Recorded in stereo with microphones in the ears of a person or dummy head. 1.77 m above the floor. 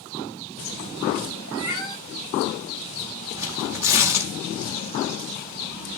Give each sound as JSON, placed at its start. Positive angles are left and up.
{"t": 1.5, "sound": "a cat meowing", "side_deg": -65, "distance_m": 4.0}
{"t": 3.4, "sound": "tearing paper", "side_deg": -10, "distance_m": 2.5}